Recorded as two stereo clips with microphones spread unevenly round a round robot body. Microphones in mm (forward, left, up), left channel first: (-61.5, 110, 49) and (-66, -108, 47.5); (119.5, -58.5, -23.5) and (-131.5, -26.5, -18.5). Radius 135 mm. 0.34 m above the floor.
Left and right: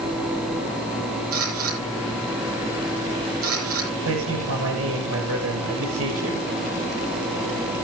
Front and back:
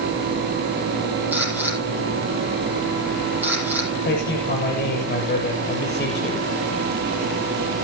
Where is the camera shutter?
105° right, 9.5 m.